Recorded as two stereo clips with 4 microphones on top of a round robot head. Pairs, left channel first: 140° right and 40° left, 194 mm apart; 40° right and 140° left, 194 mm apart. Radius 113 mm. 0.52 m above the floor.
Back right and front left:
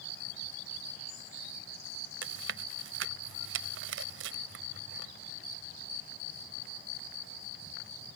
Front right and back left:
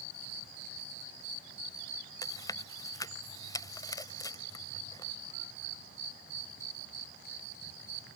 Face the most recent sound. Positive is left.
turn(degrees=30)